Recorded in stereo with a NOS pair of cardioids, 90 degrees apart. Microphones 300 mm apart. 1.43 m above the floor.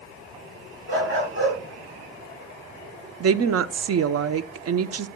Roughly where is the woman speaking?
Ahead right.